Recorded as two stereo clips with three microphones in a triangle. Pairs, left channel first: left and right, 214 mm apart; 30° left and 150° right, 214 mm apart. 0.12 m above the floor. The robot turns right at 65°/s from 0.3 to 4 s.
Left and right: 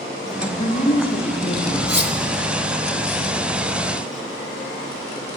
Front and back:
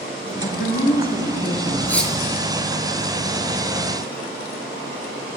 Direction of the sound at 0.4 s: 20° left.